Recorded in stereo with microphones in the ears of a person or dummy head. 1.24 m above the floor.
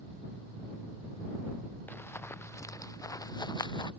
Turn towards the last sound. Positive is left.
turn(degrees=25)  # may be behind; listen again after turning